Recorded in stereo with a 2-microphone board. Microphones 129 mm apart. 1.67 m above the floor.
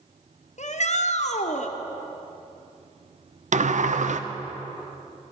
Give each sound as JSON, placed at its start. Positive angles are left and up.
{"t": 0.6, "sound": "a shout", "side_deg": 60, "distance_m": 0.8}
{"t": 3.5, "sound": "a sliding door", "side_deg": -65, "distance_m": 0.5}